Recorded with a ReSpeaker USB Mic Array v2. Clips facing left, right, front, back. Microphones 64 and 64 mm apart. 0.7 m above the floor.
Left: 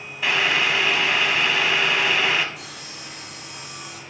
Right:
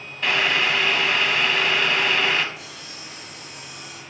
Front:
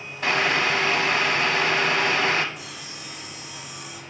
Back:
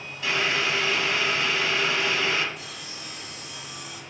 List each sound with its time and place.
0.2 s boiling: 5° left, 0.8 m
2.5 s sawing: 85° left, 2 m